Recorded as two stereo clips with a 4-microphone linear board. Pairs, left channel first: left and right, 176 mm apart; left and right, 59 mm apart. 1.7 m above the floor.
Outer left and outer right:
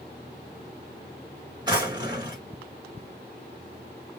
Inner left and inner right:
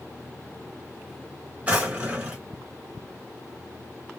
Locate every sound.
1.7 s a drawer: 20° right (ahead or behind), 1.5 m